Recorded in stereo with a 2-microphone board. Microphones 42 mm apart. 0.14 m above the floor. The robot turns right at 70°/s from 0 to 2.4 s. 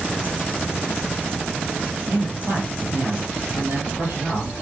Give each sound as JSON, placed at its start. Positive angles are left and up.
{"t": 2.1, "sound": "a man speaking", "side_deg": -65, "distance_m": 5.0}